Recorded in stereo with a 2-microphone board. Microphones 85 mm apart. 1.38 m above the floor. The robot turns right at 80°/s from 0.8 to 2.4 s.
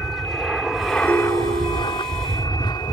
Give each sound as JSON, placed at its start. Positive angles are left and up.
{"t": 0.0, "sound": "an aircraft", "side_deg": 0}
{"t": 1.1, "sound": "a ringtone", "azimuth_deg": -155}